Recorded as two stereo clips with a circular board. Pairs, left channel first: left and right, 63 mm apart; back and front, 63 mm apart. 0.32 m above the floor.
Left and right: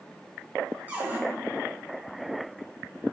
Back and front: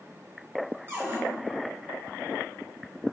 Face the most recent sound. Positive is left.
turn(degrees=-35)